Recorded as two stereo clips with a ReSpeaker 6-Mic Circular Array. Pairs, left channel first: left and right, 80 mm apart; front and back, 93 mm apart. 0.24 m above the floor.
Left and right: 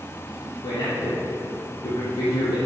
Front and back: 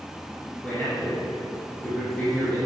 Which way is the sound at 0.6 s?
75° left.